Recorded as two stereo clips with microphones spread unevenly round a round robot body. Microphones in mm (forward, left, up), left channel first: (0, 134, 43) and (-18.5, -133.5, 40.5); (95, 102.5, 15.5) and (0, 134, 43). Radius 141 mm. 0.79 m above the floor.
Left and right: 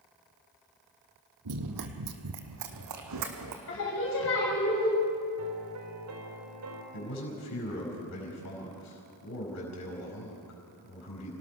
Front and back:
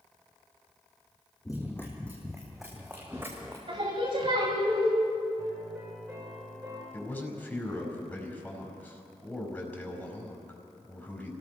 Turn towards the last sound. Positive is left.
turn(degrees=55)